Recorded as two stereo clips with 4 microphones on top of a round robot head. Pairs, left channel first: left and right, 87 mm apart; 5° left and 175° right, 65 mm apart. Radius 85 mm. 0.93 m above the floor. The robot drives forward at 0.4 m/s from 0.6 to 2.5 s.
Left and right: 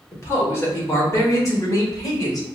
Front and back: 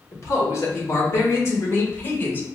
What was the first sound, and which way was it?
A man speaking, 35° left.